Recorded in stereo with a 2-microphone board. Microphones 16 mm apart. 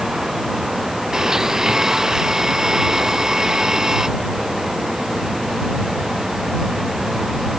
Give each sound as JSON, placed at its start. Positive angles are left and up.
{"t": 1.1, "sound": "a blender", "side_deg": -35}